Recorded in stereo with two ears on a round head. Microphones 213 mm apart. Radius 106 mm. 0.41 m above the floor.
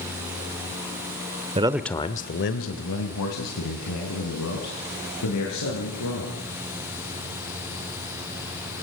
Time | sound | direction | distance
1.6 | a man speaking | 25° right (ahead or behind) | 1.0 m